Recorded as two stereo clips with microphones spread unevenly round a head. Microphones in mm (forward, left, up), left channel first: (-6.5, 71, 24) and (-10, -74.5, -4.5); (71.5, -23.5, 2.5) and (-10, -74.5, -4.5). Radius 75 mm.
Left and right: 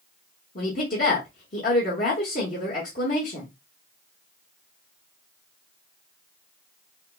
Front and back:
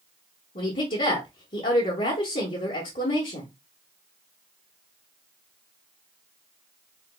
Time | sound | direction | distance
0.6 | a woman speaking | 45° left | 1.0 m